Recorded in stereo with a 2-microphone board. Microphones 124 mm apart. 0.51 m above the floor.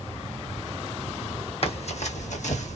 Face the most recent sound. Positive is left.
turn(degrees=65)  # may be behind; listen again after turning